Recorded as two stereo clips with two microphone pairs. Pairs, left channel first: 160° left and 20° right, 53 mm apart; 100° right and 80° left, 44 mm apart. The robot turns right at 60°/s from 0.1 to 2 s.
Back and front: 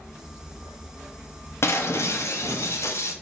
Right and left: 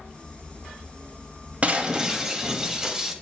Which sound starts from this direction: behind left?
Breaking glass, at 1.6 s.